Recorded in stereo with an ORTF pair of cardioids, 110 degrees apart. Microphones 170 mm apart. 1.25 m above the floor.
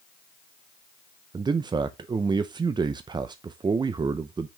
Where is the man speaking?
25° right, 0.6 m.